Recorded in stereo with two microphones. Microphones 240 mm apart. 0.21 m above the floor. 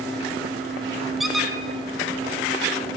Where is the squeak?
Centre (ahead or behind), 0.8 m.